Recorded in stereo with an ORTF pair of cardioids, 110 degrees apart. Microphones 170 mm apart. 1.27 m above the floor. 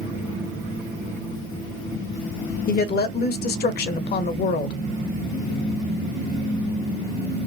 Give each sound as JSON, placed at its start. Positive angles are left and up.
{"t": 2.7, "sound": "a woman speaking", "azimuth_deg": 65, "distance_m": 0.9}